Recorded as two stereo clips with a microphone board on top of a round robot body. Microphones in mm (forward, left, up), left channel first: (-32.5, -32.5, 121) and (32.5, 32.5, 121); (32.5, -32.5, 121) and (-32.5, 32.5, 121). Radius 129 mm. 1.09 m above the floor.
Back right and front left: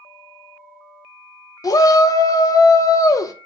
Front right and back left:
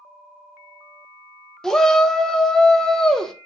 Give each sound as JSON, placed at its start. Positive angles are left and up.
{"t": 1.6, "sound": "a shout", "azimuth_deg": -125, "distance_m": 0.5}